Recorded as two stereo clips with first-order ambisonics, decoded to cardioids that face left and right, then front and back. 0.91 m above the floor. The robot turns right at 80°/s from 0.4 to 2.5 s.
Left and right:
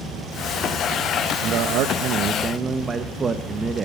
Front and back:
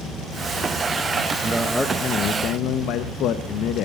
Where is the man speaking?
110° right, 0.7 m; by 3.9 s 25° right, 0.7 m.